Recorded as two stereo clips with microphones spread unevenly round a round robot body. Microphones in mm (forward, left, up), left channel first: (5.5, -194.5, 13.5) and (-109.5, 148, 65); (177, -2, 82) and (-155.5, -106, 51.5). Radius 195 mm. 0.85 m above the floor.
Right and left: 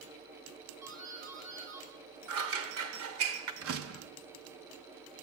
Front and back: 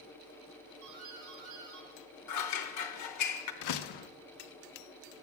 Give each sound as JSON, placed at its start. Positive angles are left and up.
{"t": 0.8, "sound": "a doorbell", "azimuth_deg": 155, "distance_m": 6.5}
{"t": 2.3, "sound": "scissors", "azimuth_deg": 60, "distance_m": 0.9}
{"t": 3.6, "sound": "a door slam", "azimuth_deg": 50, "distance_m": 0.7}